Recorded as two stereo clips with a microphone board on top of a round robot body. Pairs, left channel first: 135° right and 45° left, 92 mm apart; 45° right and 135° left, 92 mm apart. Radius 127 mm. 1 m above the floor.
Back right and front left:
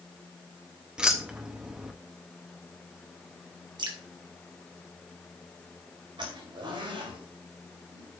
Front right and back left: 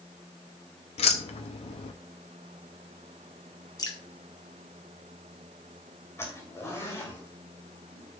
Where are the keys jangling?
35° right, 0.6 m.